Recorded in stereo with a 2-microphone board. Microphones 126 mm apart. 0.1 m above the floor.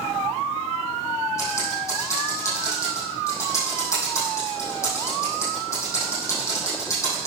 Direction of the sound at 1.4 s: 25° left (ahead or behind).